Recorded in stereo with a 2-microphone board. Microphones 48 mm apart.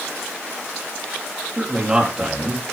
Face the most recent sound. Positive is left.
turn(degrees=-15)  # may be behind; listen again after turning